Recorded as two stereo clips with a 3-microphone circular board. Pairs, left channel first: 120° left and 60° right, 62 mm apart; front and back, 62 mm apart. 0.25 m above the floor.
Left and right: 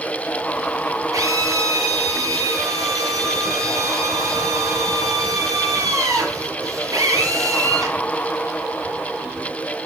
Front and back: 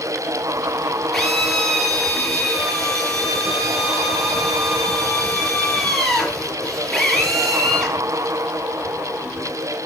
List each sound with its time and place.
1.1 s a drill: 85° right, 5 m